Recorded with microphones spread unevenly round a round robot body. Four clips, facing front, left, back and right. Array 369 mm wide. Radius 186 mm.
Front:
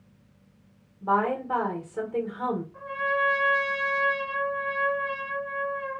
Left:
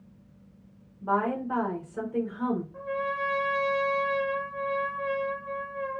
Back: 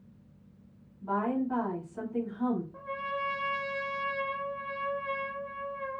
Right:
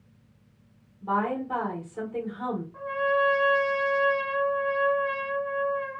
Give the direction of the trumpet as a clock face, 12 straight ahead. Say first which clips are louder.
Right 5 dB, front 7 dB; 6 o'clock.